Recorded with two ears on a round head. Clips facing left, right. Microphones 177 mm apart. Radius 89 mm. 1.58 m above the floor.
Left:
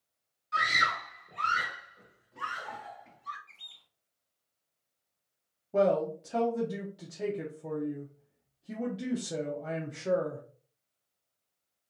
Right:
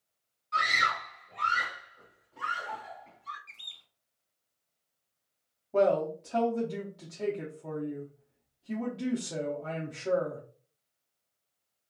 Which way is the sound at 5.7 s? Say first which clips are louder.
Right 1 dB; 10° left (ahead or behind).